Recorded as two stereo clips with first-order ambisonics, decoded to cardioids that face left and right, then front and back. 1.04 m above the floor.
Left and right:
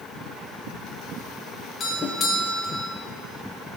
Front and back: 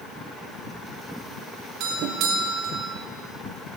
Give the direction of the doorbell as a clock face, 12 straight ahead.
7 o'clock.